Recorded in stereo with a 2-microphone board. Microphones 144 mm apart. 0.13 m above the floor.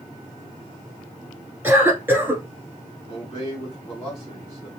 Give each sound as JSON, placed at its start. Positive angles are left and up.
{"t": 1.6, "sound": "a cough", "side_deg": -15, "distance_m": 1.6}
{"t": 3.1, "sound": "a man speaking", "side_deg": 25, "distance_m": 1.7}